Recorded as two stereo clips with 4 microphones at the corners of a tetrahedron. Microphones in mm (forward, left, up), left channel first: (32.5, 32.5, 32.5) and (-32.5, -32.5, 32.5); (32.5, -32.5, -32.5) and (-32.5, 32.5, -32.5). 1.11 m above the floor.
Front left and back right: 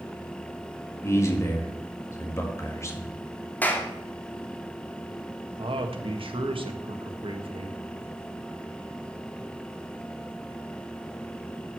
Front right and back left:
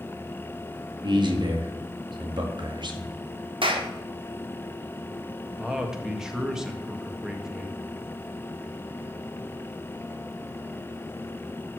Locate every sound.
1.0 s a man speaking: 105° left, 1.9 m
3.6 s a clap: 115° left, 1.7 m
5.6 s a man speaking: 140° right, 1.5 m